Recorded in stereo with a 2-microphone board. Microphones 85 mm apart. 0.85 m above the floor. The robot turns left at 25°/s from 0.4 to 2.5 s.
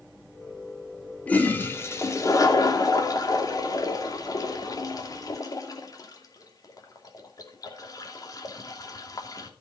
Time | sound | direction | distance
1.3 | a toilet flushing | 15° left (ahead or behind) | 2.5 m